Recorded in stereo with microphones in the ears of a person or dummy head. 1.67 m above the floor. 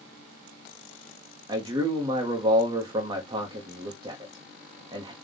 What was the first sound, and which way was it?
A man speaking, 25° right (ahead or behind).